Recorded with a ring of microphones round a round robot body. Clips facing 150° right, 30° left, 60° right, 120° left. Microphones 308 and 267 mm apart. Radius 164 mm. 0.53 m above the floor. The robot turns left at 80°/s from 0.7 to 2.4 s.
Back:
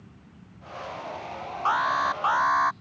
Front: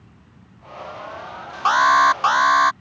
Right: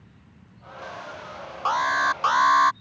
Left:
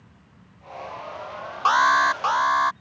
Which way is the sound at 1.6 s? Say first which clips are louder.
Front 9 dB, left 4 dB; 60° left.